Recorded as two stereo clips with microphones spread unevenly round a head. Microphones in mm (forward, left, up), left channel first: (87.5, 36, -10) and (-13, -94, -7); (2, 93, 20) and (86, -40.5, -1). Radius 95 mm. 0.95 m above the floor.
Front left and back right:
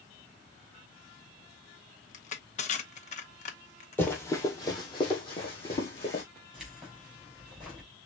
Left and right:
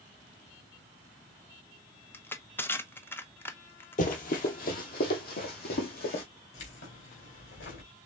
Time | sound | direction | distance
2.1 | crushing | 45° left | 0.8 m
4.0 | running footsteps | 130° left | 1.5 m
6.5 | keys jangling | 145° left | 2.5 m